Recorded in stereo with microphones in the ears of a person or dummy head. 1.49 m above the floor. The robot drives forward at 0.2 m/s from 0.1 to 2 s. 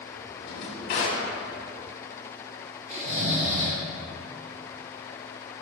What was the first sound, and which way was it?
A drawer, 45° left (ahead or behind).